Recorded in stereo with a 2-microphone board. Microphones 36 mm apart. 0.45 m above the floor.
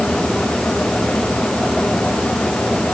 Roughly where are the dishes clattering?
No dishes clattering in this recording.